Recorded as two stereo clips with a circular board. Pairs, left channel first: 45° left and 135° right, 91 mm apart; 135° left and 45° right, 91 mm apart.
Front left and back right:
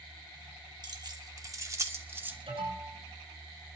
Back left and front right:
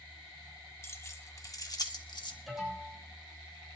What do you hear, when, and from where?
0.8 s keys jangling: 165° right, 1.4 m; by 2.4 s 160° left, 1.4 m
2.5 s an alarm: 135° right, 8 m